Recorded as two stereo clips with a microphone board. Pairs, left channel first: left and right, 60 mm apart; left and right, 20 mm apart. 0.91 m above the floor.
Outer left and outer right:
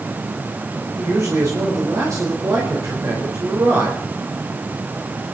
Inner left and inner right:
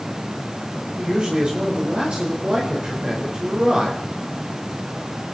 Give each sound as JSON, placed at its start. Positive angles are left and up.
{"t": 1.0, "sound": "a man speaking", "side_deg": -60, "distance_m": 4.5}